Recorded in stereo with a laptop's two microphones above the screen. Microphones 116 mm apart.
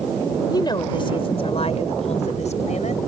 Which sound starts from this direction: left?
A woman speaking, at 0.5 s.